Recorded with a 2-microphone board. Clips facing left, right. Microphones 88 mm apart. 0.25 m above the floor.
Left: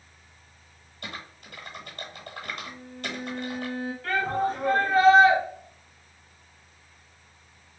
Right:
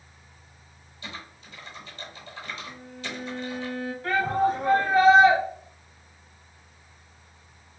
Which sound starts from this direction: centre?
A shout, at 4.0 s.